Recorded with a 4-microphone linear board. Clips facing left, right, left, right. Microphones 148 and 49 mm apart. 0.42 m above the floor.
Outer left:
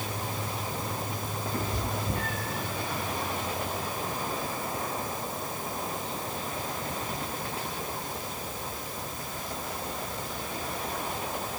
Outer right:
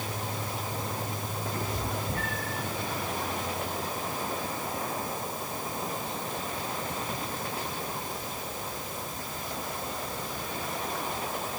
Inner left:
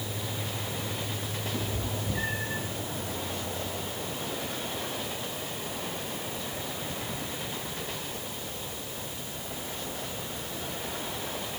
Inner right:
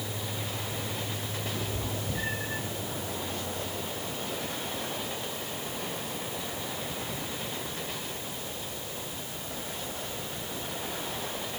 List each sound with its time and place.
1.5 s a cat meowing: 30° left (ahead or behind), 9 m; by 2.6 s 20° left (ahead or behind), 9.5 m